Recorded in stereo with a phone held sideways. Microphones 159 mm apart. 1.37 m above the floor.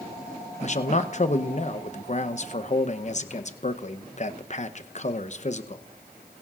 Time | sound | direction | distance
0.6 | a man speaking | 50° left (ahead or behind) | 0.8 m